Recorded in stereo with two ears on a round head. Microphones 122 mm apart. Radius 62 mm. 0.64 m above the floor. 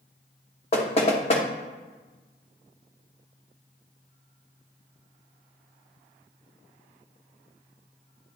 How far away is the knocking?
About 1.1 m.